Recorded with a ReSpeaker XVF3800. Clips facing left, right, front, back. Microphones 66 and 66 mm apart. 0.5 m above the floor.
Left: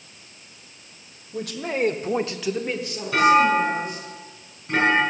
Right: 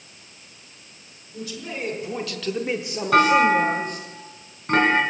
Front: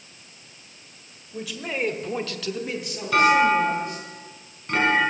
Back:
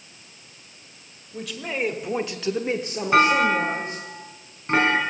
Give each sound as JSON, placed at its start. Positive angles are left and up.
{"t": 1.3, "sound": "a man speaking", "azimuth_deg": 85, "distance_m": 1.7}
{"t": 3.1, "sound": "a clunk", "azimuth_deg": -115, "distance_m": 3.5}